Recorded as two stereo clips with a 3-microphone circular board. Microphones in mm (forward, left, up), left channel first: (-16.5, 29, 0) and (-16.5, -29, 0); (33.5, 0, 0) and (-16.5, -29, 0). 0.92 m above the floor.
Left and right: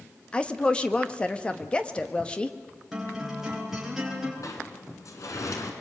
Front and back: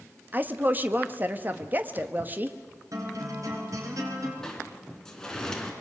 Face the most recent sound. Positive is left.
turn(degrees=105)